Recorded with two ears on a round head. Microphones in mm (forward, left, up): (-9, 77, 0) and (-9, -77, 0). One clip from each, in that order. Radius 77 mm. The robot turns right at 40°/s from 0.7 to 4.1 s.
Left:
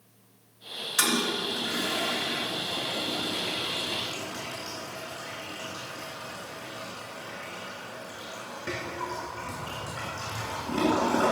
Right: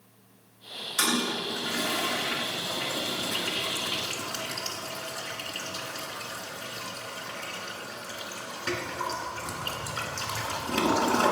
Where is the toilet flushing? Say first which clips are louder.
Left 1 dB; 15° left (ahead or behind), 2.0 m; by 11.3 s 70° right (ahead or behind), 2.0 m.